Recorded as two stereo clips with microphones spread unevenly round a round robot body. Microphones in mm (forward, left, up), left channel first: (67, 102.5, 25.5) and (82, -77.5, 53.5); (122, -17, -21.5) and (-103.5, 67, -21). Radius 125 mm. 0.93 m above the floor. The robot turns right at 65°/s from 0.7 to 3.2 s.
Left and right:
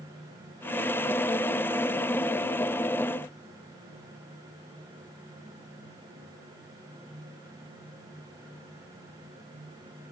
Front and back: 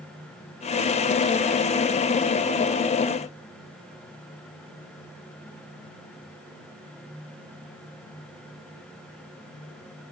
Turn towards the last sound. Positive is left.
No sound to turn to.